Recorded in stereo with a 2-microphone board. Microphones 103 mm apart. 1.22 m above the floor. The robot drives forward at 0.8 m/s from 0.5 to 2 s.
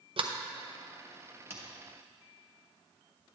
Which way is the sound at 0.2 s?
60° right (ahead or behind).